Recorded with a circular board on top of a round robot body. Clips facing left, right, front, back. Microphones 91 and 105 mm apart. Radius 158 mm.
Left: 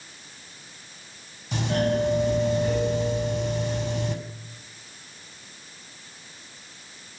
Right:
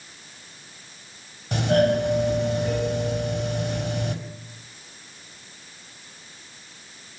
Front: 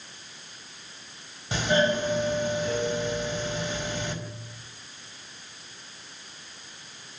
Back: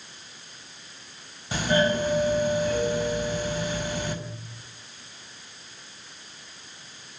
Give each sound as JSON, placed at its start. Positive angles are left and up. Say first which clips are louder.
{"t": 1.5, "sound": "a doorbell", "louder": "right 5 dB, back 1 dB", "azimuth_deg": -70, "distance_m": 5.0}